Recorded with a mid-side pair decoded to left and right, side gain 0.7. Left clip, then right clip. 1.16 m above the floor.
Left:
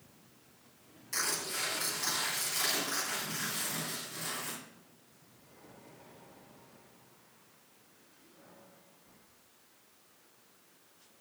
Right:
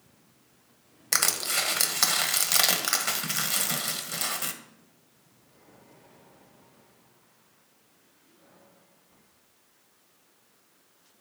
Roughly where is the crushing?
Right.